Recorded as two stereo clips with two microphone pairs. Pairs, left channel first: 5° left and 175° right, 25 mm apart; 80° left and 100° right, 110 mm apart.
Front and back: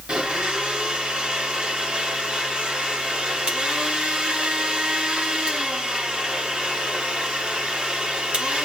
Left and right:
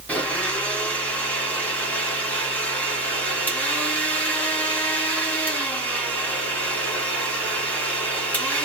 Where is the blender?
150° left, 1.3 m.